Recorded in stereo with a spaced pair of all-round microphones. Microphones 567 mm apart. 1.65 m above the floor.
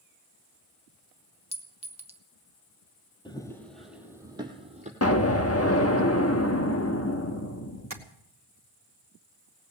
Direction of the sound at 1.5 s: 10° right (ahead or behind).